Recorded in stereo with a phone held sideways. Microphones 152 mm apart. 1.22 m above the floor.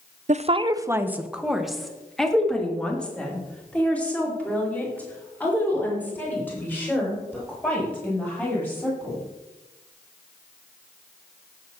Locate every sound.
0.3 s a woman speaking: 50° right (ahead or behind), 0.6 m; by 9.2 s 15° left (ahead or behind), 9 m